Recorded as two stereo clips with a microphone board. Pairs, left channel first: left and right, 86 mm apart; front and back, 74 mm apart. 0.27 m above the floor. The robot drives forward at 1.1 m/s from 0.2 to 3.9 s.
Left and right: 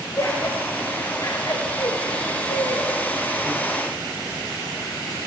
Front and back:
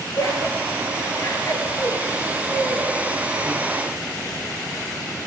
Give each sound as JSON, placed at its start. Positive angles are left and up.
{"t": 0.2, "sound": "laughter", "azimuth_deg": 40, "distance_m": 7.0}